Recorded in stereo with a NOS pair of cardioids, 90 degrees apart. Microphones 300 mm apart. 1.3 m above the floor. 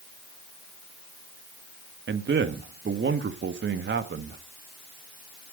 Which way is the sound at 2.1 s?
40° right.